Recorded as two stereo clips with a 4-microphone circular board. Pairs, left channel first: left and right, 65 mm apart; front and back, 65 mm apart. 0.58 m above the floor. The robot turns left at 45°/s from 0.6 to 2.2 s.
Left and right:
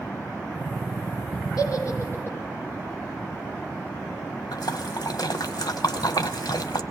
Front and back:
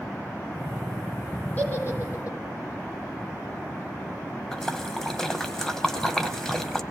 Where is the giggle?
65° left, 4.5 m; by 2.4 s 35° left, 4.5 m.